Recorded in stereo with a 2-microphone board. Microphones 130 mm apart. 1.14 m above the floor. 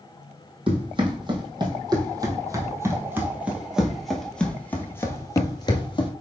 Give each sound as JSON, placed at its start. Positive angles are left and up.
{"t": 0.7, "sound": "running footsteps", "side_deg": -40, "distance_m": 2.5}